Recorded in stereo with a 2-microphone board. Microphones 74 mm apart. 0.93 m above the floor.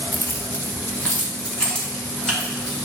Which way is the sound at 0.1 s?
45° left (ahead or behind).